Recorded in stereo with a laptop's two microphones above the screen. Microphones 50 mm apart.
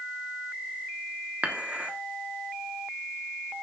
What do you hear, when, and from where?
1.4 s dishes clattering: 30° right (ahead or behind), 1.3 m